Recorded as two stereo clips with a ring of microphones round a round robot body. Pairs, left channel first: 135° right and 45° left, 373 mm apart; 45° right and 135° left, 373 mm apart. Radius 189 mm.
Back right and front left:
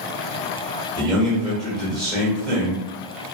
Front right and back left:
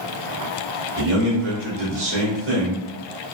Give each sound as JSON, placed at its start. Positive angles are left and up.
{"t": 1.0, "sound": "a man speaking", "azimuth_deg": 140, "distance_m": 1.2}